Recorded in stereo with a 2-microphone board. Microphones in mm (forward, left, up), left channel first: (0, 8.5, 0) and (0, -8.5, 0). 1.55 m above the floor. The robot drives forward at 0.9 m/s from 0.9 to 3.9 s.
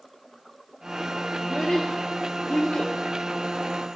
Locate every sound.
1.4 s a child speaking: 55° left (ahead or behind), 2.5 m; by 2.9 s 70° left (ahead or behind), 2.0 m